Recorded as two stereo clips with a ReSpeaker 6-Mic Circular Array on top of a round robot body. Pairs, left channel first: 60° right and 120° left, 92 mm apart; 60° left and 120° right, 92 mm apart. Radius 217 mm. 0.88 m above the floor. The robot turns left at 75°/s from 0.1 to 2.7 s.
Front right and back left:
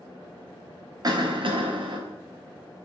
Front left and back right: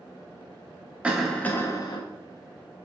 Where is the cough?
165° left, 1.2 m; by 2.0 s 90° left, 1.2 m.